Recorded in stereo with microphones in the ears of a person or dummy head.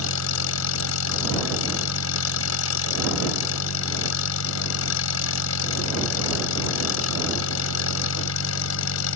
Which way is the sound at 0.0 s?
70° left (ahead or behind).